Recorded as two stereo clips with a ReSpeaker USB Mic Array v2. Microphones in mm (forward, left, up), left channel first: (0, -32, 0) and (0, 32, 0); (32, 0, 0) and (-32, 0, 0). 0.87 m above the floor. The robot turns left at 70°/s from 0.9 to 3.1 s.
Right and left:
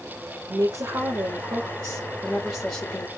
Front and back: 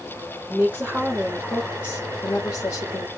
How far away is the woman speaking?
About 2.5 m.